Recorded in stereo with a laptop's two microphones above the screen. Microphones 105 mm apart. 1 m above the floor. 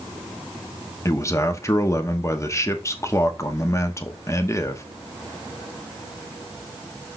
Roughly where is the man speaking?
Left.